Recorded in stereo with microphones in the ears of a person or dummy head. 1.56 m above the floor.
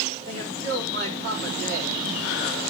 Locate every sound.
0.3 s a man speaking: 60° right (ahead or behind), 3.5 m